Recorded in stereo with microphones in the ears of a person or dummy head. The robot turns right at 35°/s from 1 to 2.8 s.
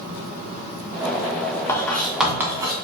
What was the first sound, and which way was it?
Writing, 20° left (ahead or behind).